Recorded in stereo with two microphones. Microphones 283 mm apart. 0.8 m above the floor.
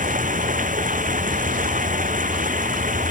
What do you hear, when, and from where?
0.0 s running water: 30° right (ahead or behind)